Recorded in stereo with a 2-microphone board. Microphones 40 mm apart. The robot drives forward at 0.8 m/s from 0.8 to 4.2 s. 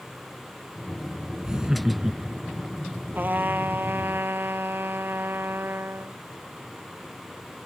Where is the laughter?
20° right (ahead or behind); by 2.6 s 10° right (ahead or behind).